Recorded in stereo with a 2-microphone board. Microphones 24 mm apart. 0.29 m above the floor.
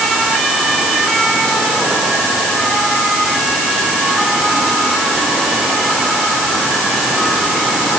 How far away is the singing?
I don't hear singing.